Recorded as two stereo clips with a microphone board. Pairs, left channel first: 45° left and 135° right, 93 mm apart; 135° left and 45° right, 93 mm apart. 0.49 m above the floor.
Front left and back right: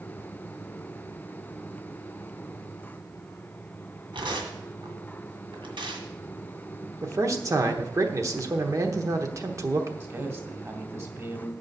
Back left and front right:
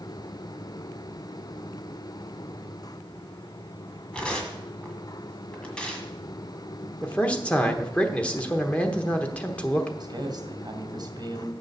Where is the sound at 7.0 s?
155° right, 1.1 m.